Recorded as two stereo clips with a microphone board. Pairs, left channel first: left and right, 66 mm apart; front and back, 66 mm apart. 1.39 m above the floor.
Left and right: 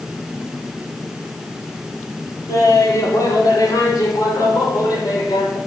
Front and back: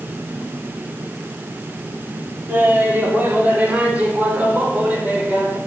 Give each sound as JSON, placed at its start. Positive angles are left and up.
{"t": 2.5, "sound": "laughter", "azimuth_deg": 120, "distance_m": 3.0}